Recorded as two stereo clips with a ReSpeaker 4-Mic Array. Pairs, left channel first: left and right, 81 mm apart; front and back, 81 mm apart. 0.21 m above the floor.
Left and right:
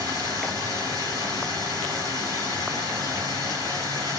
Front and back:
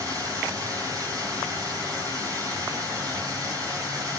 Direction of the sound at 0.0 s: 135° right.